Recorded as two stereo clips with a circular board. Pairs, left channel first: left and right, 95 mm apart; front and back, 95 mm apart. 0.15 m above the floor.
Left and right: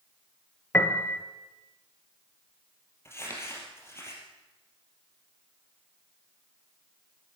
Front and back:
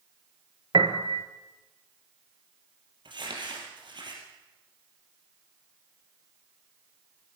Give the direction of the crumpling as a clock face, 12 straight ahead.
7 o'clock.